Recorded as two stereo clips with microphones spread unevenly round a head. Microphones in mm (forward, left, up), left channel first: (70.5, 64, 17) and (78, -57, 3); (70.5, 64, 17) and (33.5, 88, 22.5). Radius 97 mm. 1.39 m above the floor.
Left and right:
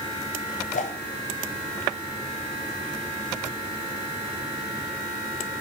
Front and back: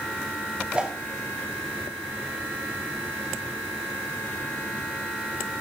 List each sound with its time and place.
0.7 s a whoosh: 80° left, 3.5 m